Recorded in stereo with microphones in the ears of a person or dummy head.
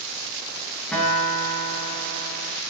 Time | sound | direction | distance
0.9 | a guitar | 5° left (ahead or behind) | 5 m